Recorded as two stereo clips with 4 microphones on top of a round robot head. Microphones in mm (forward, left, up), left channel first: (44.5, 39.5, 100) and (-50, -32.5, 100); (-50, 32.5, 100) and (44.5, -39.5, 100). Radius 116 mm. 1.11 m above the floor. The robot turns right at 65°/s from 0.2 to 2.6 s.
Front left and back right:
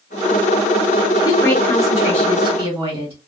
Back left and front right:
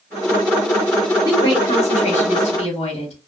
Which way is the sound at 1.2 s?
80° left.